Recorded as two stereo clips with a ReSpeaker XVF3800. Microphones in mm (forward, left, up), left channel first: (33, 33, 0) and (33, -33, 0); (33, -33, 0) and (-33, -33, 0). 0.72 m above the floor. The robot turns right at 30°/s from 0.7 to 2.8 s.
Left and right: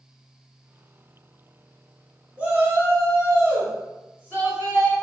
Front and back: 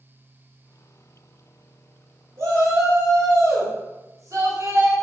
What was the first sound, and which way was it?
A shout, 155° right.